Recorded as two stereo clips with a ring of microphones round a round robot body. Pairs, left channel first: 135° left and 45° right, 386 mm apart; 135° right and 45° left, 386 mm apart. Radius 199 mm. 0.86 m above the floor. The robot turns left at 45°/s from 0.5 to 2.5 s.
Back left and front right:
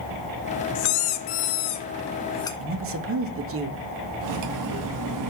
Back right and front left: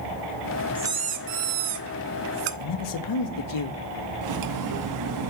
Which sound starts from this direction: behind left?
A squeak, at 0.8 s.